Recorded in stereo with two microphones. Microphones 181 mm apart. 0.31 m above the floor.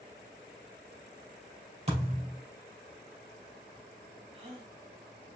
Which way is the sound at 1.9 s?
35° right (ahead or behind).